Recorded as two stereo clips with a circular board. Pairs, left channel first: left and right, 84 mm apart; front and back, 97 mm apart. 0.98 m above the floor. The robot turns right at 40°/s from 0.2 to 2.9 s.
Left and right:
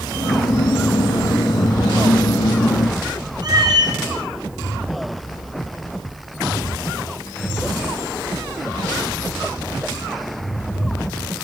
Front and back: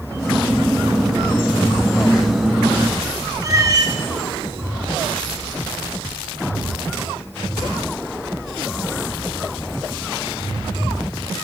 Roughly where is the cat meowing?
Behind right.